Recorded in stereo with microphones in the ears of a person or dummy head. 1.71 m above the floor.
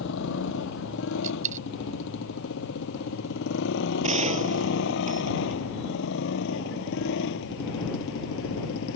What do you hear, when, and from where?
0.0 s a motorcycle: 70° left (ahead or behind)
1.2 s a dropped coin: 45° right (ahead or behind)
4.0 s a gunshot: 30° right (ahead or behind)